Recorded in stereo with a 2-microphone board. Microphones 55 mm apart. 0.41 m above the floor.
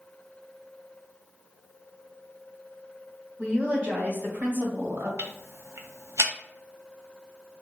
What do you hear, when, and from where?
3.4 s a woman speaking: 25° right (ahead or behind), 1.1 m; by 5.1 s 55° right (ahead or behind), 1.9 m
5.2 s ticking: 65° right (ahead or behind), 0.6 m